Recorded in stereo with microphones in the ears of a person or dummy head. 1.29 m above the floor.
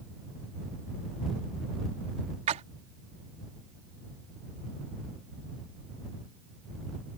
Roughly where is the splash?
Right.